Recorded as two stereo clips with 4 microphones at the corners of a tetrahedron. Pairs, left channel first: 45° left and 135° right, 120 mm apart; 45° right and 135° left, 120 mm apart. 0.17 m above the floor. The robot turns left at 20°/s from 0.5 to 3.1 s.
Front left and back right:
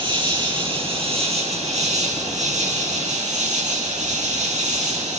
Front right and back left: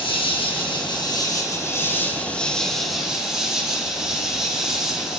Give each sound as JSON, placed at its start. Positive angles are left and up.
{"t": 0.0, "sound": "an insect", "azimuth_deg": -90, "distance_m": 3.5}